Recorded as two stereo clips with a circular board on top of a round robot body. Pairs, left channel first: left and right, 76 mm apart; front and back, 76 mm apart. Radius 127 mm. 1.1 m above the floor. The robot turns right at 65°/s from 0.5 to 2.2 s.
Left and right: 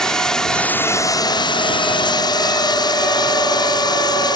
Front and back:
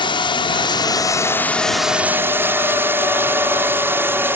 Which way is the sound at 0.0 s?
10° left.